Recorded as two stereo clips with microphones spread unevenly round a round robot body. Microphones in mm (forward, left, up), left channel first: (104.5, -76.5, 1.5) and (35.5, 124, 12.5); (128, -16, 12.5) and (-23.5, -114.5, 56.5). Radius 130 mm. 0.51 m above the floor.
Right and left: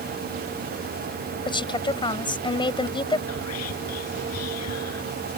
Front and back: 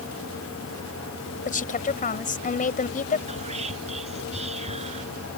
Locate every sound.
1.4 s a woman speaking: 5° right
3.3 s whispering: 95° right